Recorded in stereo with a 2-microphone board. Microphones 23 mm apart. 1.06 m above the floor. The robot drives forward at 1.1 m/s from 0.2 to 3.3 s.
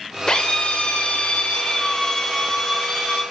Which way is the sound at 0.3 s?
35° left (ahead or behind).